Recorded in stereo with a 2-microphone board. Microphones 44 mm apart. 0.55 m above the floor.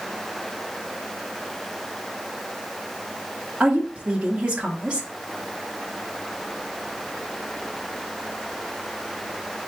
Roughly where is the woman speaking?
Right.